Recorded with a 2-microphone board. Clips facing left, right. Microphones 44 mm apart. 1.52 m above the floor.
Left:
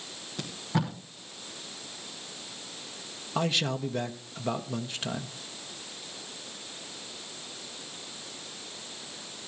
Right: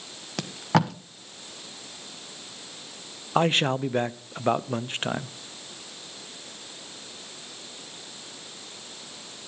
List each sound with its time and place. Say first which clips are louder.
0.4 s tape being pulled: right 7 dB; 85° right, 1.2 m
3.4 s a man speaking: right 6 dB; 35° right (ahead or behind), 0.6 m